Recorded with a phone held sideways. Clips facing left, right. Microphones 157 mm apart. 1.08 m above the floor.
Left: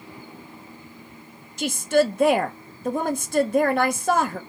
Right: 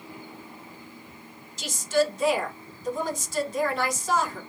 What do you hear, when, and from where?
1.6 s a woman speaking: 60° left (ahead or behind), 0.6 m